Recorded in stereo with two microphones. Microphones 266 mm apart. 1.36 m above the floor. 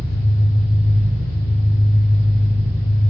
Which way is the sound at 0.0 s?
5° right (ahead or behind).